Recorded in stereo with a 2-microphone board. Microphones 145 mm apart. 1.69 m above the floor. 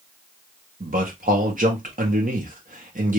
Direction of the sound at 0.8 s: 70° right (ahead or behind).